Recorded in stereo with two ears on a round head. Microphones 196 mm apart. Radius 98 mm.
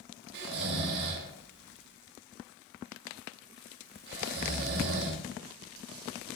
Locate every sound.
0.3 s snoring: 50° right (ahead or behind), 0.7 m